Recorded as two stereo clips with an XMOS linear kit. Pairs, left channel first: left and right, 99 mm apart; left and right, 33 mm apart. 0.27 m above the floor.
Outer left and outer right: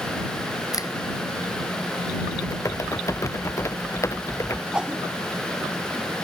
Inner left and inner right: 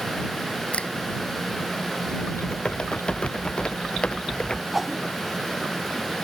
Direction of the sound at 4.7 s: 10° right (ahead or behind).